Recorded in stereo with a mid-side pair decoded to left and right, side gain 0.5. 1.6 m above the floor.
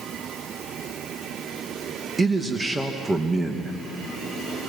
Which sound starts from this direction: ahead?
A man speaking, at 2.2 s.